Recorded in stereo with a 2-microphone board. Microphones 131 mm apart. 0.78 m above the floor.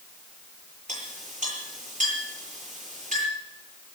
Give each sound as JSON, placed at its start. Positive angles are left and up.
{"t": 0.9, "sound": "a clink", "side_deg": -65, "distance_m": 10.0}